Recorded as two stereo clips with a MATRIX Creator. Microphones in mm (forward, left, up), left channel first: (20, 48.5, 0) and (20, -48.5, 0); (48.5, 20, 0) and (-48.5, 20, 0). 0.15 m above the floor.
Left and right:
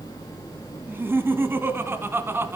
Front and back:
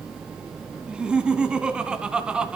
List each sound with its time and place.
0.9 s laughter: 115° right, 1.3 m